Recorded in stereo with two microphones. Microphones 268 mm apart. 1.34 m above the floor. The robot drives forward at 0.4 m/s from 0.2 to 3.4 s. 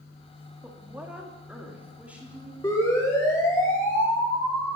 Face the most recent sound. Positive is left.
turn(degrees=5)  # may be behind; listen again after turning